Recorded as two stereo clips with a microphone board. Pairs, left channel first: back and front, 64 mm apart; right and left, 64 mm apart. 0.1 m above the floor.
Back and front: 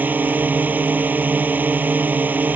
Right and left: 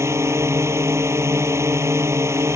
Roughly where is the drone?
Ahead left.